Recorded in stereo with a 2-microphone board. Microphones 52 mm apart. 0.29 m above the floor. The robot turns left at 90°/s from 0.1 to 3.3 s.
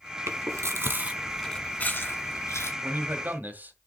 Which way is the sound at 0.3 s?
65° right (ahead or behind).